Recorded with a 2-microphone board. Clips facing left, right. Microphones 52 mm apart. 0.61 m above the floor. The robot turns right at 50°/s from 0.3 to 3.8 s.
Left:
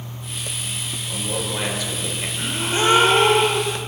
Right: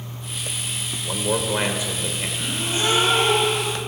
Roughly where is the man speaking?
Ahead right.